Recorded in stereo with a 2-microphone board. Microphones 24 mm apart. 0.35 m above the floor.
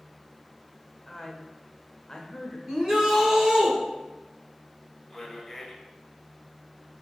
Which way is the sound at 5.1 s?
15° left (ahead or behind).